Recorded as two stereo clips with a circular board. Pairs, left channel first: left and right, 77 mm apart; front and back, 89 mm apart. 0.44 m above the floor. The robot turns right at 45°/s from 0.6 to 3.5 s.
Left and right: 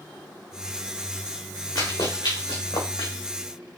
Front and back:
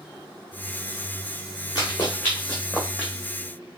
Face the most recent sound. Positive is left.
turn(degrees=130)